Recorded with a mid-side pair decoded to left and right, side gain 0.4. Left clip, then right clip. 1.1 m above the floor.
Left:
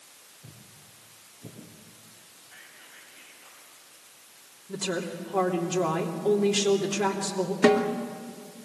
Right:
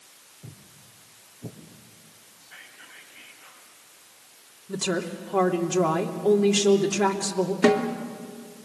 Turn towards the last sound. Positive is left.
turn(degrees=-5)